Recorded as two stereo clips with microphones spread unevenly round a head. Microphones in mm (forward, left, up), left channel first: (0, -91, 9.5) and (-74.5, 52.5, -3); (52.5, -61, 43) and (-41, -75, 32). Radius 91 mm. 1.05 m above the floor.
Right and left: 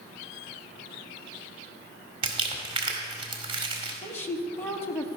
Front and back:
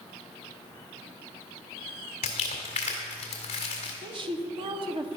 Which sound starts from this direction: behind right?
A woman speaking, at 4.0 s.